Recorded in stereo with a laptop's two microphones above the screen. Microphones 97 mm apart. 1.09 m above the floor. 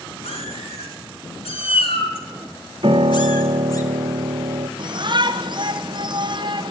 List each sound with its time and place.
0.2 s a cat meowing: 80° left, 4 m; by 3.8 s 35° left (ahead or behind), 2.5 m
2.8 s a piano: 60° right (ahead or behind), 1.1 m
4.8 s a shout: 50° right (ahead or behind), 1.0 m